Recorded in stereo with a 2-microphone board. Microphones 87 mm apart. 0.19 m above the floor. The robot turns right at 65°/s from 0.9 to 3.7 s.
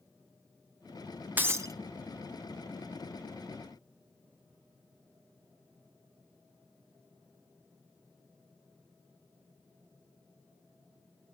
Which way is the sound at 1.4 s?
20° right (ahead or behind).